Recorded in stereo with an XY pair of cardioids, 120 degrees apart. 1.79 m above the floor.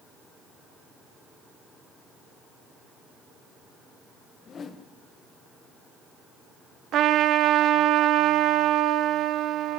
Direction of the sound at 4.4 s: 40° left.